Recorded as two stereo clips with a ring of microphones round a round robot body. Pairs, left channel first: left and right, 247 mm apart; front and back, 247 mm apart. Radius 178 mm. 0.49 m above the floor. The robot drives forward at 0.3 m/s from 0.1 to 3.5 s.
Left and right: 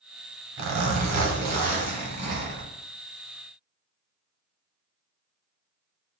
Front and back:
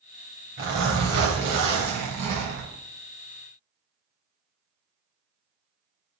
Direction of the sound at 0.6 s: 115° right.